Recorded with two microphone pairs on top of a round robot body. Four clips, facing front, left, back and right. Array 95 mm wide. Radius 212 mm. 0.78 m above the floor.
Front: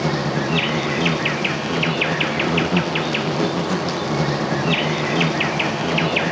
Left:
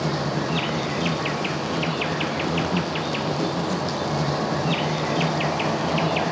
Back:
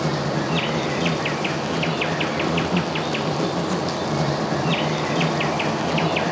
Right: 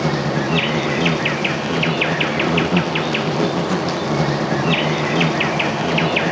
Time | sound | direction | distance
0.0 | an insect | 60° right | ?